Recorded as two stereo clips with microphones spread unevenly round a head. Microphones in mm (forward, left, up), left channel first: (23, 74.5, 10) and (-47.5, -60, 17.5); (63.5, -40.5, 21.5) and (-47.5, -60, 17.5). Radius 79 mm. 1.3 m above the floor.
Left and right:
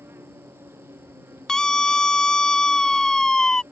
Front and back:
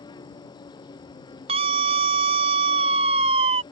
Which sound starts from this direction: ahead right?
An insect, at 0.0 s.